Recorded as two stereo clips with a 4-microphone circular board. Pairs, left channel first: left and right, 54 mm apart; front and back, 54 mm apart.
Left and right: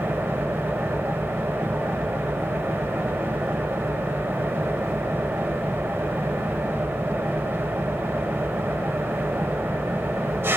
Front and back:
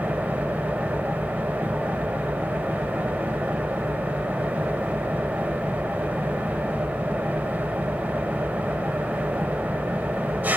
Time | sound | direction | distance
0.0 | an engine running | 130° right | 1.0 m